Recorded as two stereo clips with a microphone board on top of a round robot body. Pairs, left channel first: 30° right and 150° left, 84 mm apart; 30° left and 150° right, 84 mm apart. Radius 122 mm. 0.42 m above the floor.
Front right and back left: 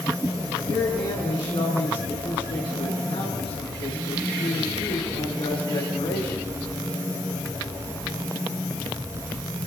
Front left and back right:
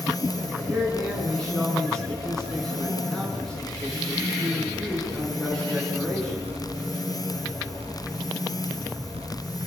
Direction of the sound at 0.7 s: 55° right.